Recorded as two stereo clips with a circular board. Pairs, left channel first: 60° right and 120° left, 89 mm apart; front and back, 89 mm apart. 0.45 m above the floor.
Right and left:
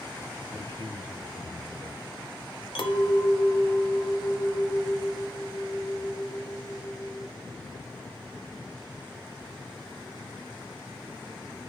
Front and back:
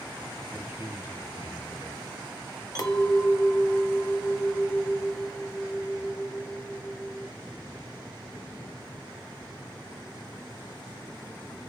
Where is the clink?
45° right, 0.8 m.